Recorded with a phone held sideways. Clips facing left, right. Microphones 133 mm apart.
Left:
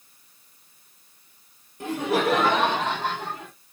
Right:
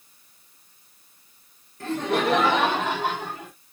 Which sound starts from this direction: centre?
Laughter, at 1.8 s.